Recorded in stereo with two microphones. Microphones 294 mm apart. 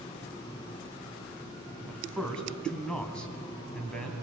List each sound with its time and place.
1.9 s a man speaking: 5° left (ahead or behind), 2.5 m